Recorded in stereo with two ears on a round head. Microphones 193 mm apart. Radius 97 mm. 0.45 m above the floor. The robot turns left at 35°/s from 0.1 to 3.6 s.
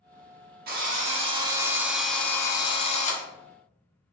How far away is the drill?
About 0.7 m.